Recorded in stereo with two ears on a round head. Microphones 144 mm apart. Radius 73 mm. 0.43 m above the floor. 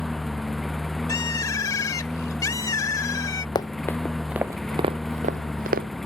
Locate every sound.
0.0 s a lawn mower: centre (ahead or behind)
1.1 s a bird: 25° left (ahead or behind)
3.5 s running footsteps: 30° left (ahead or behind); by 5.9 s 70° right (ahead or behind)